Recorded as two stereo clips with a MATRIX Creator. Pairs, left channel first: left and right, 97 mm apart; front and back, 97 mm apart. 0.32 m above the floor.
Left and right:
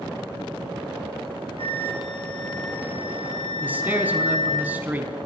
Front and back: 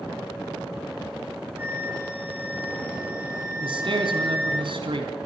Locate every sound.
1.6 s a flute: 110° left, 8 m
3.6 s a man speaking: 160° right, 3.5 m